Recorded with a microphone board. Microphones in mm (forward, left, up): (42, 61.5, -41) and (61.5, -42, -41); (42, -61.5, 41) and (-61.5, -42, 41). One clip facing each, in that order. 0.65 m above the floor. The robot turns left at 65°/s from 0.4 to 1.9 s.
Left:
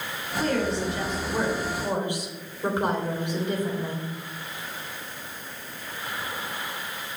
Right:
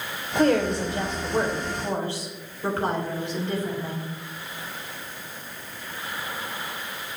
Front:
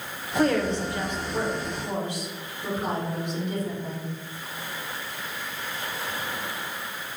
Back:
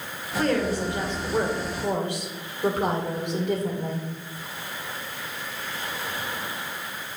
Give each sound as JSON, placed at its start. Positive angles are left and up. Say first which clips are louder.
{"t": 0.3, "sound": "a woman speaking", "louder": "right 5 dB, front 1 dB", "azimuth_deg": -90, "distance_m": 2.5}